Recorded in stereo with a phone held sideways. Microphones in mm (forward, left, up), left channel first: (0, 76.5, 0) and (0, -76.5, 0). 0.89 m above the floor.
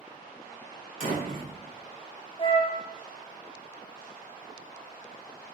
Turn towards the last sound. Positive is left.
turn(degrees=35)  # may be behind; listen again after turning